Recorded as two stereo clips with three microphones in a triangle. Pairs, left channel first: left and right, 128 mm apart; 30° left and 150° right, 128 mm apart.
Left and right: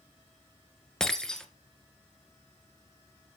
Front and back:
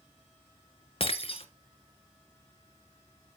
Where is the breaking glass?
5° left, 1.2 m.